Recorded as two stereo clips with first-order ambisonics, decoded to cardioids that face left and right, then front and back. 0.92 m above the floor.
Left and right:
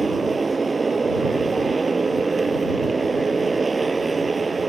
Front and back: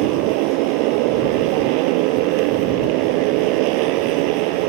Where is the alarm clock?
No alarm clock in this recording.